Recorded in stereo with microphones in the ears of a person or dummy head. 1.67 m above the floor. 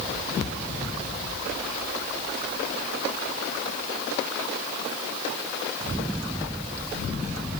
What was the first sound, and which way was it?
Only background noise.